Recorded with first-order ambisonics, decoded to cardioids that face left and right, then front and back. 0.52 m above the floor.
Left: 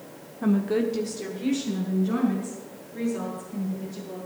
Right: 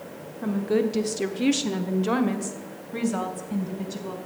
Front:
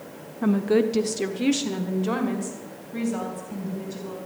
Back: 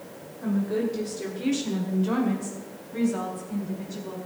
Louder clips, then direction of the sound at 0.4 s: Right 1 dB, front 6 dB; 15° left.